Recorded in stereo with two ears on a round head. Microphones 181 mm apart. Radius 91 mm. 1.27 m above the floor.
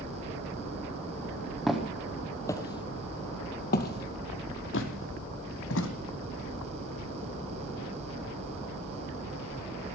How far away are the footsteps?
About 2.5 m.